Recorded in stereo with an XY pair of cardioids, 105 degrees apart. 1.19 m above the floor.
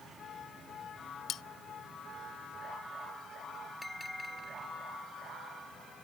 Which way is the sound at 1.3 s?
70° left.